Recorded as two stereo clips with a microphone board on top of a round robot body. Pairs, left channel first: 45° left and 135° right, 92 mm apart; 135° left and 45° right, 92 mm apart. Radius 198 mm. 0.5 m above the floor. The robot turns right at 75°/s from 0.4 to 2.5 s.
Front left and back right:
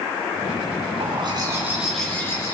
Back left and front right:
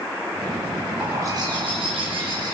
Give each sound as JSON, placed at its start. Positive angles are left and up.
{"t": 1.0, "sound": "a bird", "azimuth_deg": -115, "distance_m": 4.5}